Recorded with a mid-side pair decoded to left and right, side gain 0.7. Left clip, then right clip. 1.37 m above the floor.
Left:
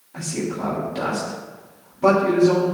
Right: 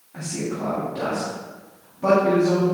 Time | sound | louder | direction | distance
0.1 | a man speaking | left 2 dB | 20° left | 3 m